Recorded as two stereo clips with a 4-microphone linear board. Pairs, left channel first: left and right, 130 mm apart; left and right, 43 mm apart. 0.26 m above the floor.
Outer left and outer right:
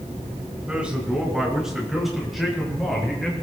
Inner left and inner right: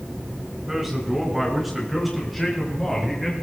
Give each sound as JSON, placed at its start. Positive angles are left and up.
{"t": 0.7, "sound": "a man speaking", "side_deg": -10, "distance_m": 3.5}